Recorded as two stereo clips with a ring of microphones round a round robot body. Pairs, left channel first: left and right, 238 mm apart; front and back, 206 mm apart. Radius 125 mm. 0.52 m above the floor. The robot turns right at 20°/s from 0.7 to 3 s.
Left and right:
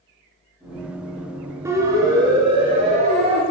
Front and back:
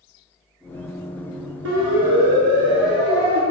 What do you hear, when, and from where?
1.6 s a siren: 170° right, 6.5 m; by 3.4 s 155° right, 7 m